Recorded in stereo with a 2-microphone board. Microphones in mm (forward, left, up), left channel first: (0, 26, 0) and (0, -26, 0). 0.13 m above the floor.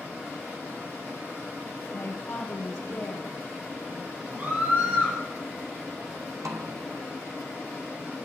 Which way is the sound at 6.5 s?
85° right.